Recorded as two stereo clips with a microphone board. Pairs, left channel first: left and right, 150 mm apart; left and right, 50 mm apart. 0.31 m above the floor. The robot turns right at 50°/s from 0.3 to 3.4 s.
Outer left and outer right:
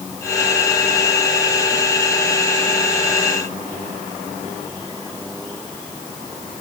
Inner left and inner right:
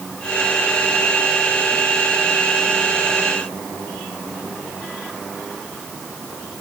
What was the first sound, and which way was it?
Only background noise.